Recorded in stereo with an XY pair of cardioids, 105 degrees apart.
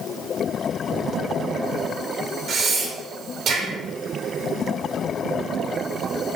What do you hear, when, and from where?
2.5 s breathing: 65° right, 1.1 m